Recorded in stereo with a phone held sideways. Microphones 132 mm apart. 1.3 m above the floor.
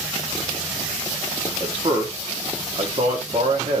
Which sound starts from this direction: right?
A man speaking, at 1.6 s.